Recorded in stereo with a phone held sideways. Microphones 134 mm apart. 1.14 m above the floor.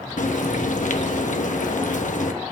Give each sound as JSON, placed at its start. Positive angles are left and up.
{"t": 0.2, "sound": "frying", "side_deg": 65, "distance_m": 1.0}